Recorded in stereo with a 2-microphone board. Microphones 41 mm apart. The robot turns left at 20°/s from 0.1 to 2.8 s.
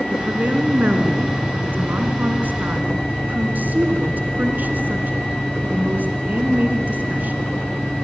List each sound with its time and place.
0.1 s a woman speaking: 55° right, 1.6 m; by 7.4 s 110° right, 1.6 m